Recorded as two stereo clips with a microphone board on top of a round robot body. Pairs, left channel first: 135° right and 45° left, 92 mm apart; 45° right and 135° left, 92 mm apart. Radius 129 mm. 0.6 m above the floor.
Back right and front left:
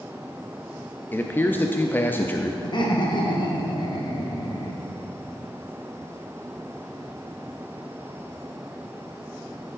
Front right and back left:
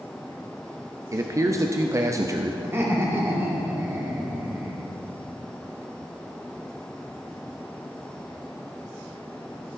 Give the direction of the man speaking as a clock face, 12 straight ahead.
6 o'clock.